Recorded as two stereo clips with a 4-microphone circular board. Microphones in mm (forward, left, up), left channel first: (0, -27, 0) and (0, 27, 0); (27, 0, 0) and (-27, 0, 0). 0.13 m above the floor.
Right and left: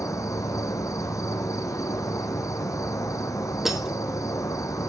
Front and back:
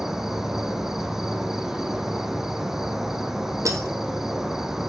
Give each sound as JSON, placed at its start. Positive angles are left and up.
{"t": 0.0, "sound": "an insect", "azimuth_deg": -95, "distance_m": 0.9}
{"t": 3.6, "sound": "breaking glass", "azimuth_deg": 175, "distance_m": 1.6}